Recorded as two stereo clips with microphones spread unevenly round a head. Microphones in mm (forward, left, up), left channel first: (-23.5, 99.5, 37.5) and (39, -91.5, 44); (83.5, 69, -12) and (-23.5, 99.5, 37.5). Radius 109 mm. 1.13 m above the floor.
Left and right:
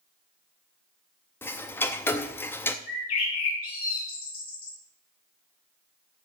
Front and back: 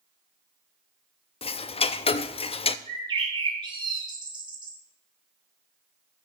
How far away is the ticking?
About 0.6 m.